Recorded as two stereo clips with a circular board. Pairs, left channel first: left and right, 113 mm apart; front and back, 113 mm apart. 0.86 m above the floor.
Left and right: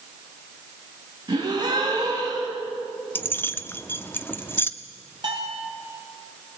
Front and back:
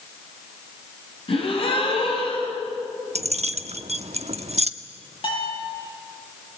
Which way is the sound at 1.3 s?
40° right.